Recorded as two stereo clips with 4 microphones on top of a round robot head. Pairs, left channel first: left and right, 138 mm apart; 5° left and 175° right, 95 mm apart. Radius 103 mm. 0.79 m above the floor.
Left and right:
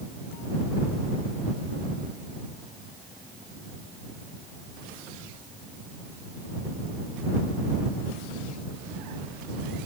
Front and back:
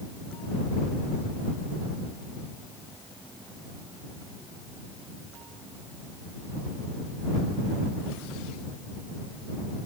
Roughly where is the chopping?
I don't hear chopping.